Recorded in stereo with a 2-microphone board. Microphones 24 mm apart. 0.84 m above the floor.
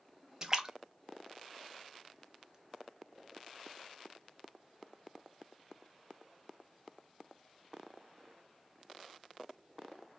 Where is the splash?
20° right (ahead or behind), 0.6 m.